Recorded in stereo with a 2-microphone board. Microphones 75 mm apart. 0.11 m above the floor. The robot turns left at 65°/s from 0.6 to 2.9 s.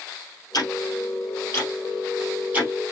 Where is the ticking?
60° left (ahead or behind), 2.5 m; by 2.7 s 30° right (ahead or behind), 2.5 m.